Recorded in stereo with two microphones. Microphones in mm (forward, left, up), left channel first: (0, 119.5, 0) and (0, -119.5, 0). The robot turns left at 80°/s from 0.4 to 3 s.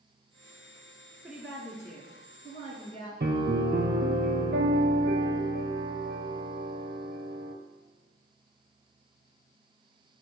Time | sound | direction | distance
1.2 | a woman speaking | centre (ahead or behind) | 1.8 m
3.2 | a piano | 50° right (ahead or behind) | 0.8 m